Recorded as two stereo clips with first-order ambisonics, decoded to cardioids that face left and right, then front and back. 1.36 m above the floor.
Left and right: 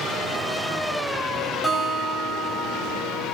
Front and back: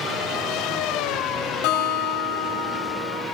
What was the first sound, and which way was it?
A guitar, straight ahead.